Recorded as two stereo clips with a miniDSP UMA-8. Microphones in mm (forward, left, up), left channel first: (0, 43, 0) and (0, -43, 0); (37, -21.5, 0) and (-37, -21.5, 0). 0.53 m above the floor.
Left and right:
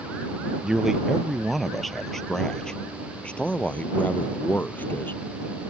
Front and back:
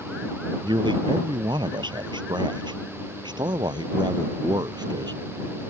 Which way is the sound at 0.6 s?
175° right.